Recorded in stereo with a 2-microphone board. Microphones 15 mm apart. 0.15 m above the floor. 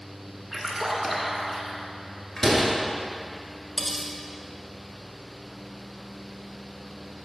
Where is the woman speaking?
No woman speaking in this recording.